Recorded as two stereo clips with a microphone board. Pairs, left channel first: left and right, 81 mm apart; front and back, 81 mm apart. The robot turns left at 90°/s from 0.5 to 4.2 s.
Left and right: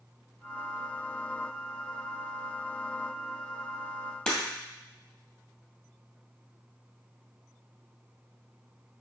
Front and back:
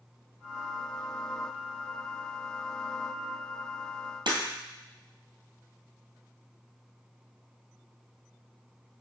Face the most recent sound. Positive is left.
turn(degrees=170)